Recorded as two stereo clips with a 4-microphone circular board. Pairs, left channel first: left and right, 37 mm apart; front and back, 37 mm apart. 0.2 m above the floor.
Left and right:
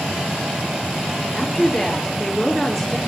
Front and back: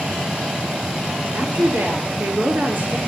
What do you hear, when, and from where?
1.3 s a woman speaking: 165° left, 4.5 m